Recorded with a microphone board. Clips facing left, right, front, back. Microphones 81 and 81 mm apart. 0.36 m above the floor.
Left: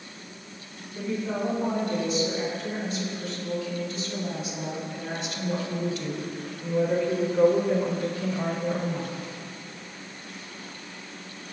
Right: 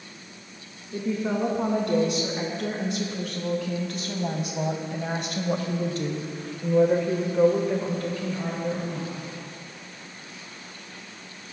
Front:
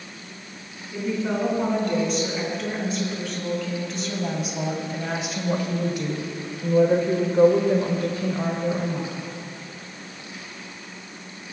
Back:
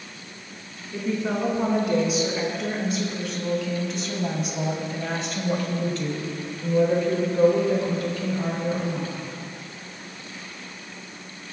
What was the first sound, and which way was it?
A woman speaking, 95° right.